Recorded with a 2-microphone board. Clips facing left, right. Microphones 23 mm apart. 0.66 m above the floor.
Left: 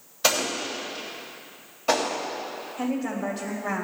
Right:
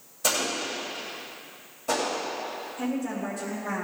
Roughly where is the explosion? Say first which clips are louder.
Left 3 dB; left.